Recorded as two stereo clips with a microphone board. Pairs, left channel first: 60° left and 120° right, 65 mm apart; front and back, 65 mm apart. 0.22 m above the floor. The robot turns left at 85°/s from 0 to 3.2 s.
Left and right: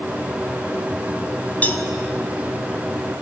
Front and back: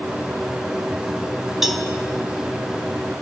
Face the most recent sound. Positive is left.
turn(degrees=-35)